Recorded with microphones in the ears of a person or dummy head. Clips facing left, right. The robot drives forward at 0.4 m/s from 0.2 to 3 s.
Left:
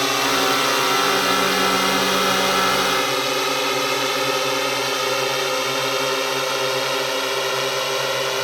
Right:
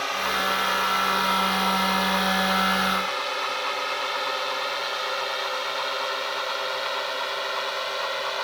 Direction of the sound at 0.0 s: 60° left (ahead or behind).